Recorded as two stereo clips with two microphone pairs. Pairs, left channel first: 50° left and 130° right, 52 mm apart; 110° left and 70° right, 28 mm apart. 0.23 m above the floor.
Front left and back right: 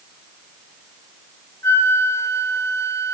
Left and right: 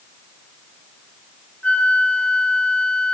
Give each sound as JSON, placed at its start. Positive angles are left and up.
{"t": 1.6, "sound": "a flute", "azimuth_deg": 70, "distance_m": 1.3}